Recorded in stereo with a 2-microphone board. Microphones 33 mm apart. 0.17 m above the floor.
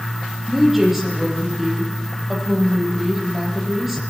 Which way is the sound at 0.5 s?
5° right (ahead or behind).